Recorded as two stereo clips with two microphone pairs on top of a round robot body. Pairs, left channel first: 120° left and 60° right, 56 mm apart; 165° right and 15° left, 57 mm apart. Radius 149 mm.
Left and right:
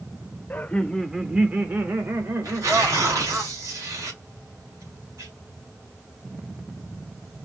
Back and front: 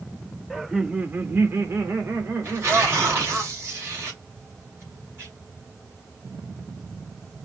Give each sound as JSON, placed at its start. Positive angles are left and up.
{"t": 0.5, "sound": "laughter", "azimuth_deg": 120, "distance_m": 1.2}
{"t": 2.4, "sound": "tearing paper", "azimuth_deg": -35, "distance_m": 2.5}